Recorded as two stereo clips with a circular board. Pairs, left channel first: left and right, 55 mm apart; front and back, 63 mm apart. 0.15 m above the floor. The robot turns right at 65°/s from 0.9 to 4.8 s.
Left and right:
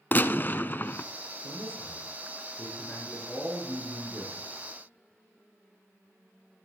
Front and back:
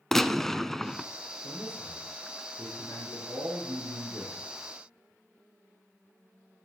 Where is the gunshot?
85° left, 0.5 m; by 1.1 s 95° left, 0.5 m.